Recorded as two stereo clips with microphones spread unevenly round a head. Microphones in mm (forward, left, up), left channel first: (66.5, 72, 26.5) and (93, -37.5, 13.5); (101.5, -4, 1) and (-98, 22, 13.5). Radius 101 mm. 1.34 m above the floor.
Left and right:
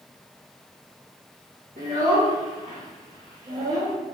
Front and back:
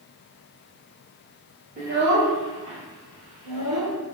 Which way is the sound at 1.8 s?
130° right.